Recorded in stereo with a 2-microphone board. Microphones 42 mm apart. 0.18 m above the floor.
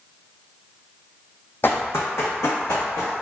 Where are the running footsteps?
55° left (ahead or behind), 0.5 m; by 3.2 s 85° left, 1.1 m.